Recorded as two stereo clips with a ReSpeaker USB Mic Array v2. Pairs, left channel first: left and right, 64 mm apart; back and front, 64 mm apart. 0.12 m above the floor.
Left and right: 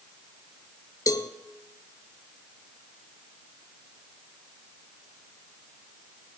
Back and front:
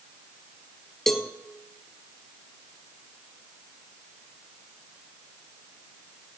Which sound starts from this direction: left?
A cowbell, at 1.1 s.